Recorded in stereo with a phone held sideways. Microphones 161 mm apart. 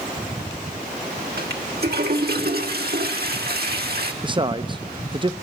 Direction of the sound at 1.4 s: 75° right (ahead or behind).